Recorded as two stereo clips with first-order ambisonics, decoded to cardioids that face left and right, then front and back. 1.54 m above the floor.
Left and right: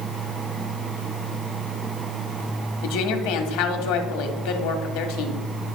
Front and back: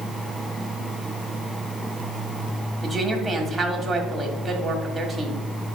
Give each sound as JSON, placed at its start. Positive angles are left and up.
{"t": 2.8, "sound": "a woman speaking", "azimuth_deg": 95, "distance_m": 1.4}